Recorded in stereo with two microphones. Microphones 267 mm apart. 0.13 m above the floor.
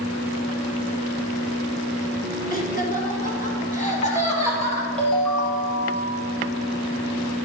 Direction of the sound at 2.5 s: 35° left (ahead or behind).